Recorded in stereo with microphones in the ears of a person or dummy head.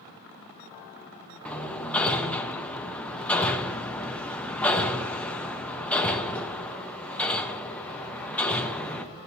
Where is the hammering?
10° left (ahead or behind), 0.7 m.